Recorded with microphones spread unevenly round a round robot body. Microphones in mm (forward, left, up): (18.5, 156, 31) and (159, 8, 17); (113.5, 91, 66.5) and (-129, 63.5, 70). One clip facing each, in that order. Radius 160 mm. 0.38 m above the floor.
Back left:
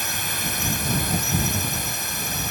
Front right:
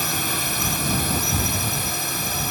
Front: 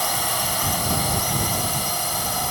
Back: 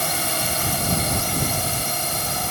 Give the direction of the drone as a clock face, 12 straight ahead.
3 o'clock.